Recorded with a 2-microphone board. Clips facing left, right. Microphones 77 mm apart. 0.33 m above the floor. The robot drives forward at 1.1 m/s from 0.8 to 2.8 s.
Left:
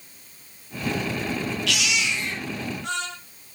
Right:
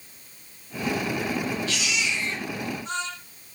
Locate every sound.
1.7 s a baby crying: 85° left, 6 m; by 3.1 s 75° left (ahead or behind), 6 m